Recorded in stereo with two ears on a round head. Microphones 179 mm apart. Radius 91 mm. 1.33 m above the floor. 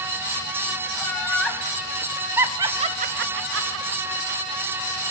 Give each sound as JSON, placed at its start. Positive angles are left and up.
{"t": 0.9, "sound": "laughter", "side_deg": 10, "distance_m": 3.0}